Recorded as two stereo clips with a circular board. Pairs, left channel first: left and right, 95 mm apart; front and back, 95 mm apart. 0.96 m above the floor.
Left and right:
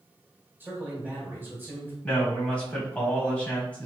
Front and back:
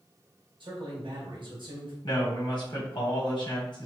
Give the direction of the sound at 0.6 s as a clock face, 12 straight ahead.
5 o'clock.